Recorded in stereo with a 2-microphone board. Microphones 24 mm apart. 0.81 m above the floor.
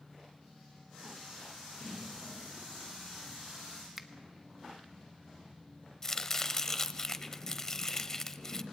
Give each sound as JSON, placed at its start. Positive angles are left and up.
{"t": 4.0, "sound": "a finger snap", "side_deg": -15, "distance_m": 1.2}
{"t": 6.0, "sound": "chopping", "side_deg": 25, "distance_m": 1.0}